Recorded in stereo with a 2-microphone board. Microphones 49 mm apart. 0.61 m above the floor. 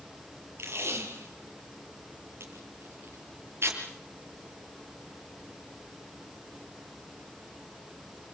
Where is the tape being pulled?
60° right (ahead or behind), 6 m.